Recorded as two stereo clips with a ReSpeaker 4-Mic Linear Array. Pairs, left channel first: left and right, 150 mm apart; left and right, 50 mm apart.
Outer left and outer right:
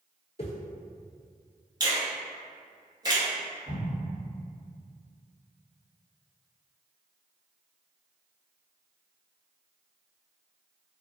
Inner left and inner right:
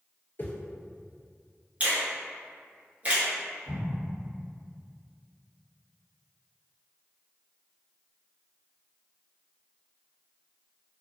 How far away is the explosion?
About 1.8 m.